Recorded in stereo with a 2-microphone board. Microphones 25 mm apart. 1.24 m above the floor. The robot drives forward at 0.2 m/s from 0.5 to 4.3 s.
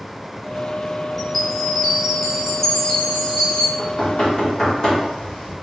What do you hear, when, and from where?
1.2 s a chime: 10° left (ahead or behind), 1.1 m; by 3.7 s 5° left (ahead or behind), 1.5 m
3.8 s knocking: 25° left (ahead or behind), 1.4 m